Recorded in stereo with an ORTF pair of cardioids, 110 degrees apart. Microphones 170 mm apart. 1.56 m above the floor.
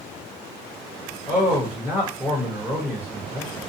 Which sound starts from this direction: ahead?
A man speaking, at 1.3 s.